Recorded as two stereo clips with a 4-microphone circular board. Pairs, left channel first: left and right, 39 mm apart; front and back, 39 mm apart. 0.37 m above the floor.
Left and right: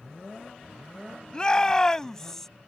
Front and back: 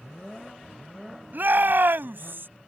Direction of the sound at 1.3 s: 155° left.